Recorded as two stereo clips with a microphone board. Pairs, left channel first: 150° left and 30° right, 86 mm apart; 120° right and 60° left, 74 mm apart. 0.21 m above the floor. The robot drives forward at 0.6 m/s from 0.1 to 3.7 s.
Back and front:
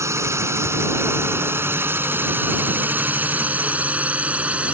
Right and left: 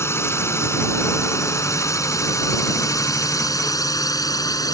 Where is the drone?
75° right; by 4.8 s 100° right.